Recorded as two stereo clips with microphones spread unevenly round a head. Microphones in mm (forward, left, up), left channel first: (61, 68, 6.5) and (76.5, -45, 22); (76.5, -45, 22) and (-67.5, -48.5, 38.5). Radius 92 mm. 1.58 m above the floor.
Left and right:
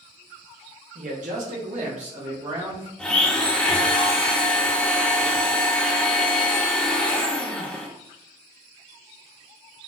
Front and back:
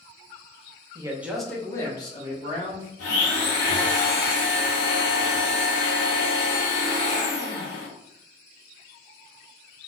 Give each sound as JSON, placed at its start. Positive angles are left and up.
{"t": 0.9, "sound": "a man speaking", "azimuth_deg": -115, "distance_m": 0.7}
{"t": 3.0, "sound": "a blender", "azimuth_deg": 15, "distance_m": 0.9}